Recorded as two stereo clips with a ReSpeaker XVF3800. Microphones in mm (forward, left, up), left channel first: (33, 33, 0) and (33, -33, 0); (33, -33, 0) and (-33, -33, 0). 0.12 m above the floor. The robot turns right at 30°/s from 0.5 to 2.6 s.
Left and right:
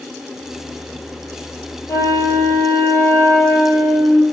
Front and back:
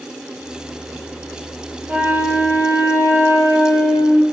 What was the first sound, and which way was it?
A flute, 115° left.